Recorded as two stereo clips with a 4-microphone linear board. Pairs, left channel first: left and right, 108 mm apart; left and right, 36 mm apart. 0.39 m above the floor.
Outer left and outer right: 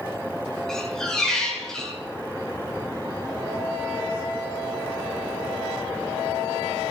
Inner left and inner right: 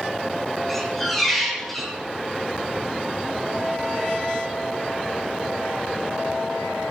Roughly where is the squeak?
Centre.